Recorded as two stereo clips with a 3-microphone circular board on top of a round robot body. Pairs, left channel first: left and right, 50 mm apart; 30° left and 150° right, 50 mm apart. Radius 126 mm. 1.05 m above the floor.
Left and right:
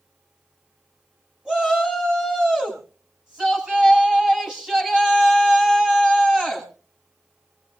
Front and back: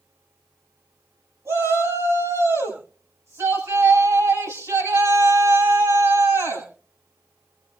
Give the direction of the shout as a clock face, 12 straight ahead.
5 o'clock.